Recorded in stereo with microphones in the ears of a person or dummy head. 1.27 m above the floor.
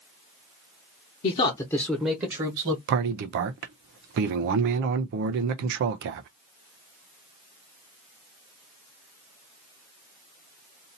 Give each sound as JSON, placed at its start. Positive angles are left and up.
{"t": 1.2, "sound": "a man speaking", "side_deg": 40, "distance_m": 1.0}
{"t": 2.9, "sound": "a man speaking", "side_deg": -55, "distance_m": 0.5}